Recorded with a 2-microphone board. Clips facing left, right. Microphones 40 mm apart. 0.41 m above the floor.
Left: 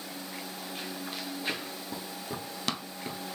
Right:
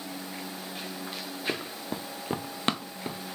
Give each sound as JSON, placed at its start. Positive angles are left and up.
{"t": 1.5, "sound": "running footsteps", "side_deg": -45, "distance_m": 0.6}